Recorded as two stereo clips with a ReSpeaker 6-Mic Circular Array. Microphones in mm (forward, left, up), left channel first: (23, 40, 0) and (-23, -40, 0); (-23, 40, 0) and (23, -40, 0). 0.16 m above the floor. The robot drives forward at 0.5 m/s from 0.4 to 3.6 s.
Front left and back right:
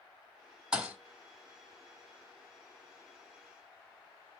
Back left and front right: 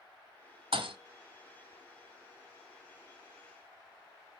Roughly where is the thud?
Ahead right.